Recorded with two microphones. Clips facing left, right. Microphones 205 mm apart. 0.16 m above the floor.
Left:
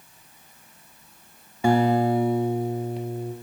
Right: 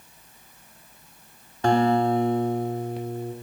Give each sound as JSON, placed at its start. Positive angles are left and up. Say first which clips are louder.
{"t": 1.6, "sound": "a guitar", "louder": "left 1 dB", "side_deg": 10, "distance_m": 0.6}